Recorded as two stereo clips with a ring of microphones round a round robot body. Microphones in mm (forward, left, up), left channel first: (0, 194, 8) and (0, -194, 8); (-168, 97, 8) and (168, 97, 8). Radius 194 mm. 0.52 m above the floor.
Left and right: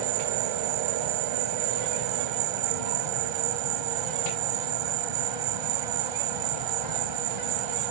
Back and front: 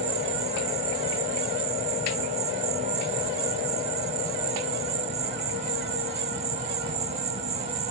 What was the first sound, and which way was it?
An insect, 75° right.